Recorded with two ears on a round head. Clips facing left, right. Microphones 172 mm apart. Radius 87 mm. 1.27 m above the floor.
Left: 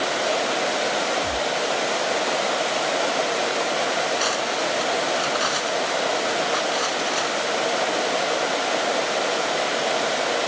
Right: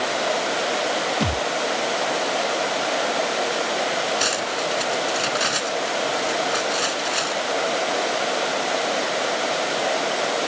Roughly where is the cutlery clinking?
Right.